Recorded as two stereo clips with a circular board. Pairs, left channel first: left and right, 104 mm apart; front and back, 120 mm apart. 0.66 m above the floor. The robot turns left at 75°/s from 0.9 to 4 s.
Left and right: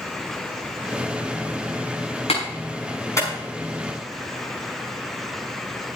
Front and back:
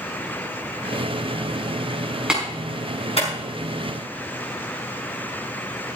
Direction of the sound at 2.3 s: 100° left.